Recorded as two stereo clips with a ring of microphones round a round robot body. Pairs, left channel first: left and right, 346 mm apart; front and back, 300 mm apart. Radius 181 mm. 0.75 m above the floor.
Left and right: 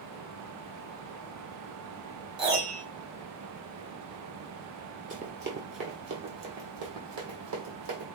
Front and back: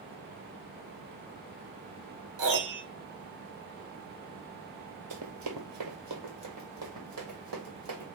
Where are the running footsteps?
150° right, 1.1 m; by 8.1 s 125° right, 2.5 m.